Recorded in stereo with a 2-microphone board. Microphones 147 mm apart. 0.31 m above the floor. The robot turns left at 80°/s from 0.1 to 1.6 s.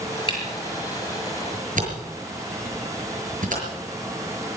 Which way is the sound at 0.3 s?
35° left (ahead or behind).